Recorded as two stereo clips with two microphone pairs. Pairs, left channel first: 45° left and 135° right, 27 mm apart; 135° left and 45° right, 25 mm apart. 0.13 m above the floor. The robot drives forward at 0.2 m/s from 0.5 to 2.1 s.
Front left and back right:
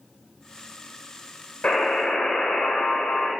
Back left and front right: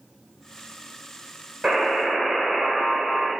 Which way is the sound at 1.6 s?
45° left.